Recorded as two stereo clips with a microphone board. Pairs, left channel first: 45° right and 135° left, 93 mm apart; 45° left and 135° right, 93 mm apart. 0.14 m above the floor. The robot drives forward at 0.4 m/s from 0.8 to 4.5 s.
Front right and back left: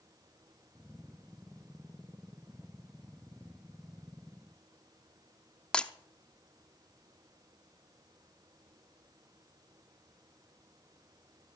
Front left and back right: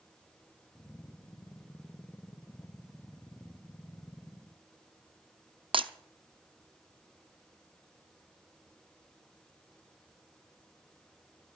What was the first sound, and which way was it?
Breaking glass, 125° right.